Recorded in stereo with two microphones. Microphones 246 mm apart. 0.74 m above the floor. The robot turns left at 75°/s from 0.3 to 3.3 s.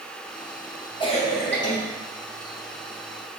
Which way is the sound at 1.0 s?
155° left.